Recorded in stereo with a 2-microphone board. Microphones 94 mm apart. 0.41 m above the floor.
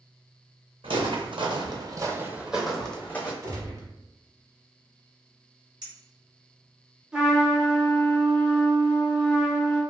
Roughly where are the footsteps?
Right.